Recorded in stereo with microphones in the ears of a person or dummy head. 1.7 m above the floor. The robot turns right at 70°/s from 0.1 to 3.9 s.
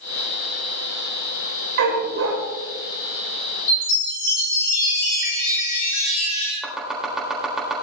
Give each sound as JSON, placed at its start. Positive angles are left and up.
{"t": 1.8, "sound": "a dog barking", "azimuth_deg": -120, "distance_m": 2.5}
{"t": 3.7, "sound": "a chime", "side_deg": 75, "distance_m": 7.0}
{"t": 6.6, "sound": "chopping", "side_deg": 5, "distance_m": 3.5}